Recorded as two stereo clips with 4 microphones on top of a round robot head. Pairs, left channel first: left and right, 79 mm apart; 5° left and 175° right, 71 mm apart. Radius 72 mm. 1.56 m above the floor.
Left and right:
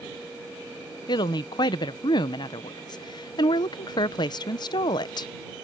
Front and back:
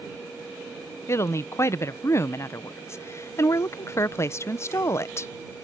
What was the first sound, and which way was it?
A woman speaking, 60° left.